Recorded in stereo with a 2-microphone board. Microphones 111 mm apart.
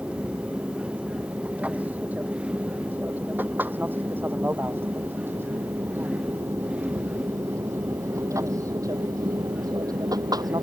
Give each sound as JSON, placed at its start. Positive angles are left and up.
{"t": 0.0, "sound": "an aircraft", "side_deg": -10}